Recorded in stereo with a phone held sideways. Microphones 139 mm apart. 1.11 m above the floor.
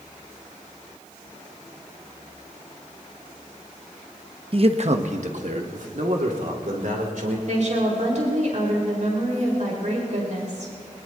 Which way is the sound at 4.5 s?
40° right (ahead or behind).